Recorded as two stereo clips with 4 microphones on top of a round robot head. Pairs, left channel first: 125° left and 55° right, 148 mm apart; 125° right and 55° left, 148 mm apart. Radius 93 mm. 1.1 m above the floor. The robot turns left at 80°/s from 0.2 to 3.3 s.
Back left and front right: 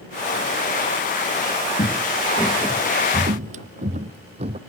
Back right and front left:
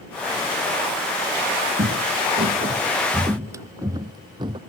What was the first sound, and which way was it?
Footsteps, 85° left.